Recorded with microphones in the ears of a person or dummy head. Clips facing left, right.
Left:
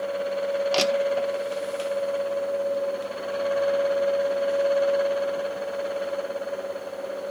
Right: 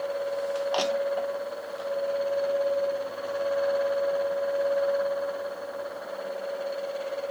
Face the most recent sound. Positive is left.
turn(degrees=30)  # may be behind; listen again after turning